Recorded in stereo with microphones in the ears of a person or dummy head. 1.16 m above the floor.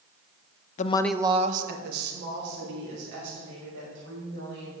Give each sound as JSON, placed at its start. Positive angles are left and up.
{"t": 0.8, "sound": "a woman speaking", "side_deg": 45, "distance_m": 0.6}